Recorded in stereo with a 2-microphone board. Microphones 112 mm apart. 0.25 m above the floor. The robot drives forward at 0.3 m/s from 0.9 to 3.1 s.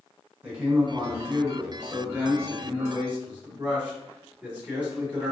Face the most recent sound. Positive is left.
turn(degrees=-15)  # may be behind; listen again after turning